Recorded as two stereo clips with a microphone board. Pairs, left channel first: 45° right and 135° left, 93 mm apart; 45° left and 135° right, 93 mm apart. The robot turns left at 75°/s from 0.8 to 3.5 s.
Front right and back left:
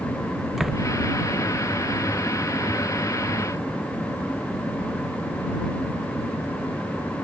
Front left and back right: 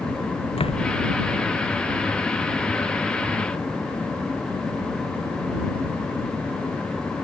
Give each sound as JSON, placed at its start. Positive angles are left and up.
{"t": 0.6, "sound": "a door slam", "azimuth_deg": 50}